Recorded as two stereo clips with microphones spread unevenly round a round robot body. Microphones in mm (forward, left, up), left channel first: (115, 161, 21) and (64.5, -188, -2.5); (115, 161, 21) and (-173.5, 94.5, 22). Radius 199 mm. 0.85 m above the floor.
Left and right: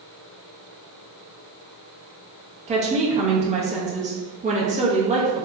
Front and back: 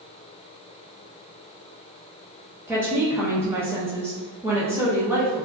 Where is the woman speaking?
95° right, 0.7 m.